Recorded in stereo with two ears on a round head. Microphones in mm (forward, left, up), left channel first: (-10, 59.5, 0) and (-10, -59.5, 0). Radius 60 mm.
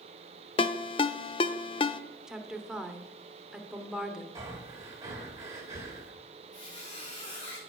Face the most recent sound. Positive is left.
turn(degrees=30)  # may be behind; listen again after turning